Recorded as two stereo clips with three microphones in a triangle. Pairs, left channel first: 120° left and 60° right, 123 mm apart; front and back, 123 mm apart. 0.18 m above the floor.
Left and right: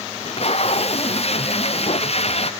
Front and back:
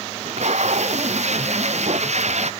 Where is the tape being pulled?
155° left.